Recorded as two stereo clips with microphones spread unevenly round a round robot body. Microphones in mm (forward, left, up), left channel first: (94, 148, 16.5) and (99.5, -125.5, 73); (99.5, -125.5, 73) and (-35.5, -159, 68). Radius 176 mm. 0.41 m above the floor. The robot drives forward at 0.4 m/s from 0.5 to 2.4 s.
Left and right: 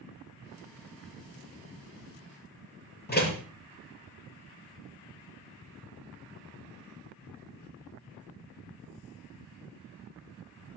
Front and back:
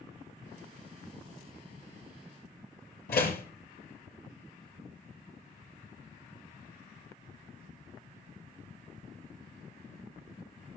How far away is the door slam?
About 6 m.